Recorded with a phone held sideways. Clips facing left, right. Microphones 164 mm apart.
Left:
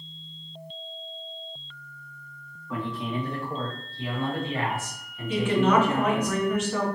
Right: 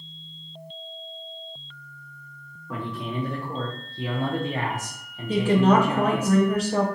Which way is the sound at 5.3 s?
40° right (ahead or behind).